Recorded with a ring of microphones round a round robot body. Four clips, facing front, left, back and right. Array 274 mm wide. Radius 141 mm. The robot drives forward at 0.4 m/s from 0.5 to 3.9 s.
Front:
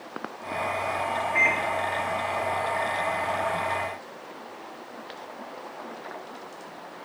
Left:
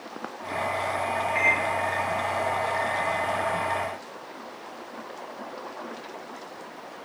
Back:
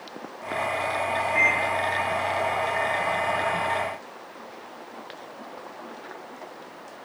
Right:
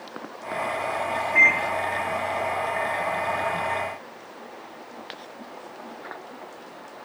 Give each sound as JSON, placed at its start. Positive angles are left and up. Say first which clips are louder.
{"t": 1.4, "sound": "a microwave", "louder": "right 6 dB, even", "azimuth_deg": -90, "distance_m": 3.5}